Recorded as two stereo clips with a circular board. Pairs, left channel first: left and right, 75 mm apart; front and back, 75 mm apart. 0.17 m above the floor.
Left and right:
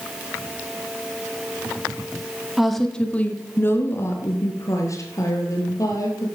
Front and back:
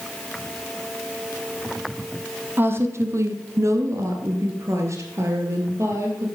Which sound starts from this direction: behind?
A woman speaking, at 2.6 s.